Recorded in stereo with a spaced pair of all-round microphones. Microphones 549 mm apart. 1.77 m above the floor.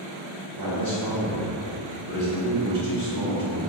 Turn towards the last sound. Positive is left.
turn(degrees=-35)  # may be behind; listen again after turning